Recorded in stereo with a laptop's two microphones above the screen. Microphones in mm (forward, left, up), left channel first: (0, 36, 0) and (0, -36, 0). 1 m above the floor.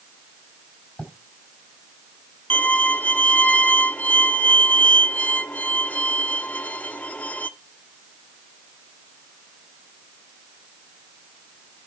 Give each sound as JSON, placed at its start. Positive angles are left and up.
{"t": 1.0, "sound": "writing", "side_deg": 10, "distance_m": 3.0}
{"t": 2.5, "sound": "a violin", "side_deg": 20, "distance_m": 0.6}